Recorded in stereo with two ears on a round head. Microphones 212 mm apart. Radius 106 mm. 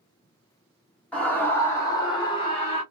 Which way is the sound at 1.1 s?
5° left (ahead or behind).